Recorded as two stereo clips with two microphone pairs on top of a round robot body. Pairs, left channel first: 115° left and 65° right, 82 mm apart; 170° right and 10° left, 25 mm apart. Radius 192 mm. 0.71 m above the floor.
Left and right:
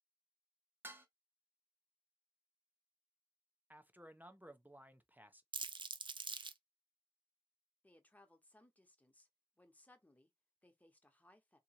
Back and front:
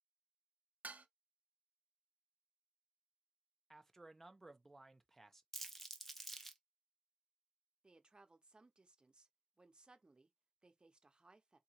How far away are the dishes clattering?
About 0.5 m.